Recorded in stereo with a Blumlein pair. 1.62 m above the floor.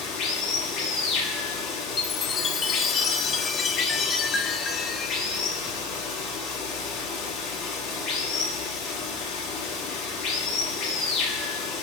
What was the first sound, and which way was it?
Running water, 30° left.